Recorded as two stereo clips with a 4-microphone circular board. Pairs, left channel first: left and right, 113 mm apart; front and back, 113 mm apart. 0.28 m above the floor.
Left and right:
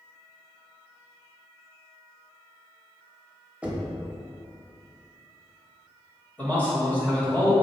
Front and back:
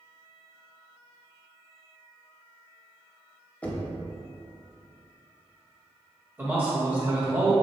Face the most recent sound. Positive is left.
turn(degrees=140)